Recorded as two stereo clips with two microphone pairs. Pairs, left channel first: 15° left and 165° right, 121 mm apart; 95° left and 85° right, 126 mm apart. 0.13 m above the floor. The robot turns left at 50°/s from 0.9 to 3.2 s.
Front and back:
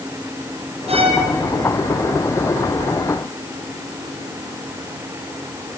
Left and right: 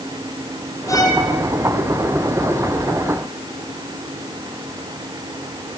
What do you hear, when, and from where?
0.9 s a violin: 160° left, 3 m; by 1.2 s 145° left, 3 m